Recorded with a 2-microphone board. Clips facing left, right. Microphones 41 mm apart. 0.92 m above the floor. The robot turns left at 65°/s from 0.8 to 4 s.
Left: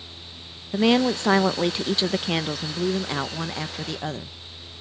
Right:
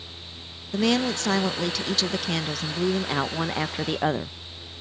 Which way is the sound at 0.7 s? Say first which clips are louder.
Left 3 dB; 140° left.